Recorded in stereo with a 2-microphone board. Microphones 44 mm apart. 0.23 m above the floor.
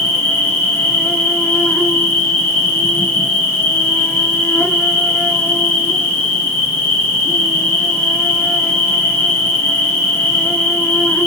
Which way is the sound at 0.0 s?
70° left (ahead or behind).